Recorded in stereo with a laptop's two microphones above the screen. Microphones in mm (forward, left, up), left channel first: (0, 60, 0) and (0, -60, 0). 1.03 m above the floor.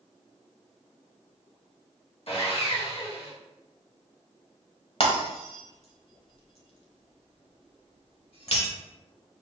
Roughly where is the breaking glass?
Left.